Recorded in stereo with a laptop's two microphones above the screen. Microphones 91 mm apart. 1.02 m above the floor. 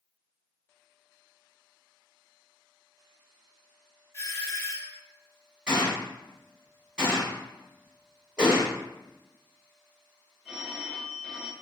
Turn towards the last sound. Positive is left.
turn(degrees=-5)  # may be behind; listen again after turning